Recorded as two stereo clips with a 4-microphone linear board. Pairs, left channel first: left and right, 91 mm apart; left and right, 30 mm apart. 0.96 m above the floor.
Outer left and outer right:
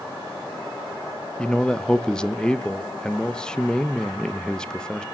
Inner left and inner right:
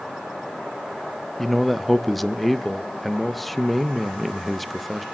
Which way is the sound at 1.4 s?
10° left (ahead or behind).